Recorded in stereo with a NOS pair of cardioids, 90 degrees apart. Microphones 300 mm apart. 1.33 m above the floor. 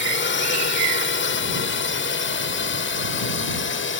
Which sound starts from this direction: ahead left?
A drone, at 0.0 s.